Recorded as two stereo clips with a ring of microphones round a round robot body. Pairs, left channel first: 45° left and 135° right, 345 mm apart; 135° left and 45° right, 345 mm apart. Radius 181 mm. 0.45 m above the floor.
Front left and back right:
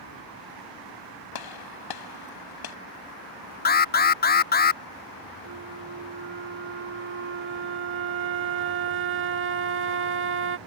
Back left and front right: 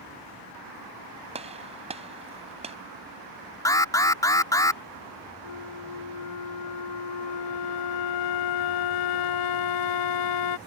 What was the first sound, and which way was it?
A gunshot, 30° left.